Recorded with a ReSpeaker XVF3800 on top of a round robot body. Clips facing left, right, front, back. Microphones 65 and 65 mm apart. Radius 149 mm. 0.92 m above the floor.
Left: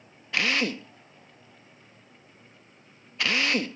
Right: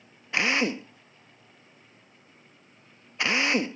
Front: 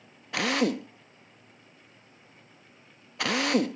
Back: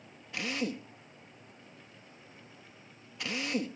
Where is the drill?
20° right.